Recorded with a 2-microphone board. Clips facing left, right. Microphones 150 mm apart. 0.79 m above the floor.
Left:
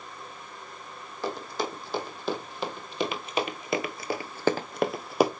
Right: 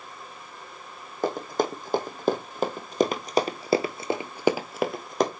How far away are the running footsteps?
About 2 m.